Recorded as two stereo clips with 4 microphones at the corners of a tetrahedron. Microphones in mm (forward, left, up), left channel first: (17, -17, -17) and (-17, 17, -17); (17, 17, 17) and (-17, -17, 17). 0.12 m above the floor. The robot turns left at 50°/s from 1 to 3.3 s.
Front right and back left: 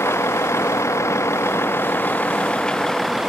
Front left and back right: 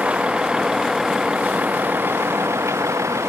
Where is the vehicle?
70° right; by 3.3 s 140° right.